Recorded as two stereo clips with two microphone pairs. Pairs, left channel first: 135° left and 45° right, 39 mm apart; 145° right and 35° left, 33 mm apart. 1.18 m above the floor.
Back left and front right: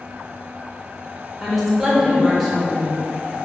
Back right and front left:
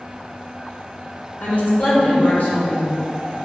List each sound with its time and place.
1.4 s a woman speaking: 140° right, 0.8 m